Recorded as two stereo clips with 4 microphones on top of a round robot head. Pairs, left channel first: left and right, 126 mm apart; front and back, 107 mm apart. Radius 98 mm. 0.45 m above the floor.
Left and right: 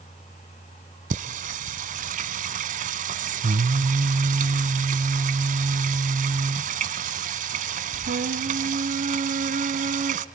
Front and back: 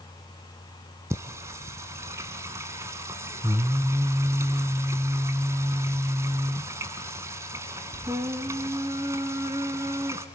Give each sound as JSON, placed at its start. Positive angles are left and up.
{"t": 1.1, "sound": "singing", "azimuth_deg": -110, "distance_m": 0.9}